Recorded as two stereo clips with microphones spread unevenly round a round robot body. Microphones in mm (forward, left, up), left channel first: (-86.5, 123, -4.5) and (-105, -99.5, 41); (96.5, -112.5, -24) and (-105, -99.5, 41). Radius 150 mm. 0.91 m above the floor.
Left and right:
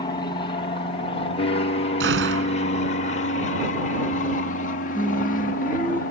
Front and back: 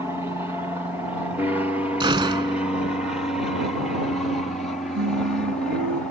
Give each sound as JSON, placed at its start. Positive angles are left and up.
{"t": 0.0, "sound": "an aircraft", "azimuth_deg": 75}
{"t": 2.0, "sound": "a gunshot", "azimuth_deg": -120}
{"t": 5.0, "sound": "singing", "azimuth_deg": 170}